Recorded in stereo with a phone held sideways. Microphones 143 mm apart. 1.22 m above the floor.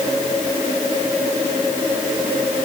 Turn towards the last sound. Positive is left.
No sound to turn to.